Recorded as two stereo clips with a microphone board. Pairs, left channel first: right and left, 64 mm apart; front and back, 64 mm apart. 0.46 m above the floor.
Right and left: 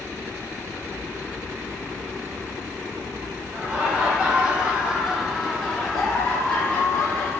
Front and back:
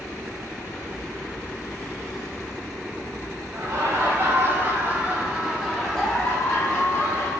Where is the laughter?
155° left, 1.3 m; by 7.3 s 30° right, 1.0 m.